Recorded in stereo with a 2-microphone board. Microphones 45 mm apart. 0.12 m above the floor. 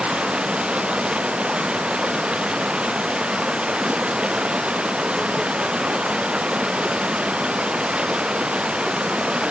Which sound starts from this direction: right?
Running water, at 0.0 s.